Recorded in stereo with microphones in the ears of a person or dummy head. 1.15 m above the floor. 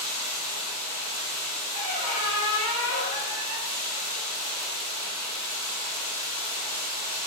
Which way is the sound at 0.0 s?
20° right (ahead or behind).